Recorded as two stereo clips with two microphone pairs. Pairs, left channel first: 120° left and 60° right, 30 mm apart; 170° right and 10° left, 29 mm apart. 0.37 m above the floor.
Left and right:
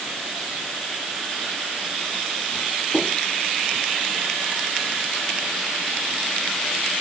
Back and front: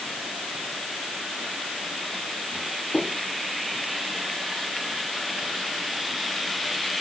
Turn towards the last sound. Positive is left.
No sound to turn to.